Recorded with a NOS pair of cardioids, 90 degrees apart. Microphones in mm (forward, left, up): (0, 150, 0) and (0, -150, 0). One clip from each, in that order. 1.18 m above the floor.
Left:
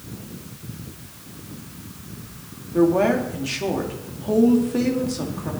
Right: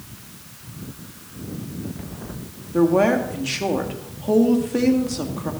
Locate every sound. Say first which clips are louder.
2.7 s a woman speaking: right 1 dB; 15° right, 1.9 m